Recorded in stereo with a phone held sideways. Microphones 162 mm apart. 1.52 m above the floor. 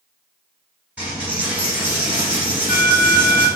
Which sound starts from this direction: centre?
A dropped coin, at 1.0 s.